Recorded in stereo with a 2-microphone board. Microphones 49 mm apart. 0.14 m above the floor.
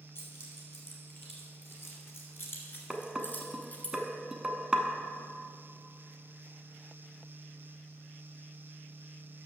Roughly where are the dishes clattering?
Centre.